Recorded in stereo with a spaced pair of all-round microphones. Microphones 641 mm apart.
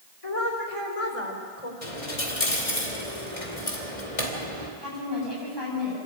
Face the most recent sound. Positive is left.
turn(degrees=40)  # may be behind; listen again after turning